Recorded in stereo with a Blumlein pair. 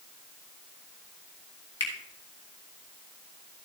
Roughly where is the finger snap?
Ahead left.